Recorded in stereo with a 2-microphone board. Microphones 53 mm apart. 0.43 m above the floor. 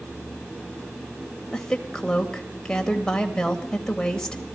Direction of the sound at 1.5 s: 10° left (ahead or behind).